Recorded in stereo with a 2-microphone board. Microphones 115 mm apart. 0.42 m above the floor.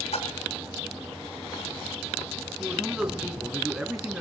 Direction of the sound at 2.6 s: 5° right (ahead or behind).